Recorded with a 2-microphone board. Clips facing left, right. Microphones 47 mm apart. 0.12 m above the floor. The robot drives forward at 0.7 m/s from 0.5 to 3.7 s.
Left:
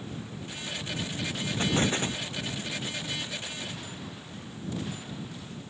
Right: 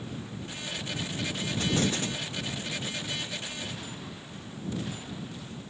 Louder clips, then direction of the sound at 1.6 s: Left 2 dB; 35° left (ahead or behind).